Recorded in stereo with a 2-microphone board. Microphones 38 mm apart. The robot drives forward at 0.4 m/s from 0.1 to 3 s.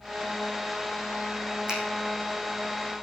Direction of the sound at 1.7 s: 20° right (ahead or behind).